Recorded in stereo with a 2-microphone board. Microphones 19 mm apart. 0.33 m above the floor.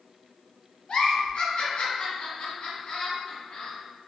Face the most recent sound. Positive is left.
turn(degrees=50)  # may be behind; listen again after turning